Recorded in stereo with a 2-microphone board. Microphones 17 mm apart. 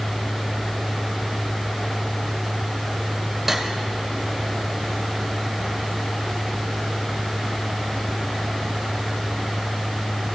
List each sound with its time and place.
3.5 s cutlery clinking: 20° right (ahead or behind), 1.7 m